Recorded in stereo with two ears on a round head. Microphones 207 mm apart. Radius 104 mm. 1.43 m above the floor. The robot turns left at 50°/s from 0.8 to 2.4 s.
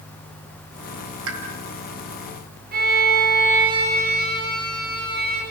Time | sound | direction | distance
1.3 | a pop | 65° right (ahead or behind) | 3.5 m
2.7 | a violin | 40° right (ahead or behind) | 8 m